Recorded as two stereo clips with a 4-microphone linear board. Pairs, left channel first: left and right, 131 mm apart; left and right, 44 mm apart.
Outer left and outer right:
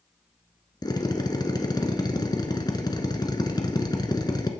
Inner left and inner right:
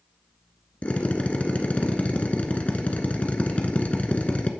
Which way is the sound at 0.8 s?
30° left (ahead or behind).